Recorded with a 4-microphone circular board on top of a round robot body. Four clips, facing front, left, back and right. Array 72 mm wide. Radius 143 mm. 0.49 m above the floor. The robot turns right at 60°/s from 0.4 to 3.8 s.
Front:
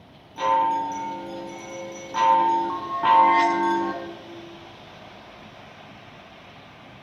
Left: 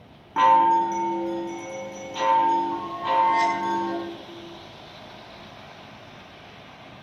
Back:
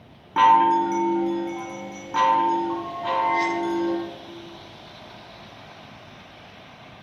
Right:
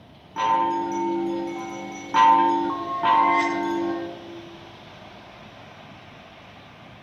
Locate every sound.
0.4 s a chime: 155° left, 2.5 m; by 3.9 s 5° right, 2.5 m